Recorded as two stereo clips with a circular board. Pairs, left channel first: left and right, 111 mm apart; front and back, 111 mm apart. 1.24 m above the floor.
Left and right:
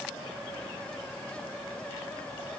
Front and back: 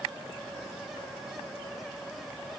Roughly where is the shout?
No shout in this recording.